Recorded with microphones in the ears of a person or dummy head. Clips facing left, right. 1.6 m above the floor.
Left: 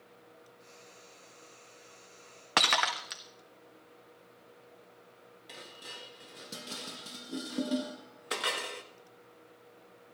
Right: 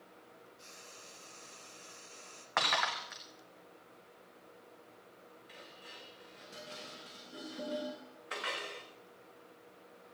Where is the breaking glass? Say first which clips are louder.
Left 3 dB; 45° left (ahead or behind), 1.5 m.